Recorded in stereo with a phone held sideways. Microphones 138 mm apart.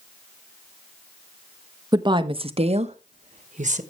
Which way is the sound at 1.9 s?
30° right (ahead or behind).